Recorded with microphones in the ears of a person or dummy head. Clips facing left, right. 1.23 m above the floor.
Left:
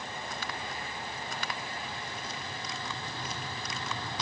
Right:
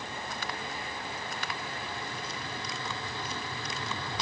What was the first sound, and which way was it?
Only background noise.